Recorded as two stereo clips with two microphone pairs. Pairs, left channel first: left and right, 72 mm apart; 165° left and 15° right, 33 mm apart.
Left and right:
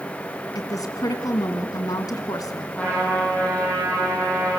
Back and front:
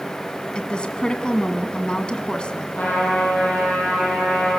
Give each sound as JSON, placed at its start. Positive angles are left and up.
{"t": 0.6, "sound": "a woman speaking", "azimuth_deg": 105, "distance_m": 2.0}
{"t": 2.8, "sound": "a trumpet", "azimuth_deg": 155, "distance_m": 9.0}